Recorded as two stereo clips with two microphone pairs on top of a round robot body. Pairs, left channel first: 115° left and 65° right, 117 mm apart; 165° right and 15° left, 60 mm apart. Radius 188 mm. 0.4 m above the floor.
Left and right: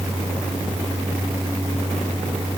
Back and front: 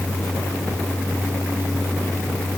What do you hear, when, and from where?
Only background noise.